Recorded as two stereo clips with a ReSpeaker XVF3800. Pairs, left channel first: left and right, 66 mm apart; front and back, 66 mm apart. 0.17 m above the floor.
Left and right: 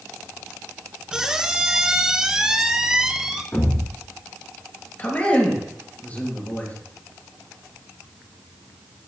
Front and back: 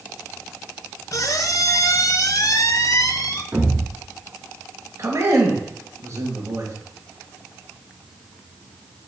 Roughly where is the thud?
Behind left.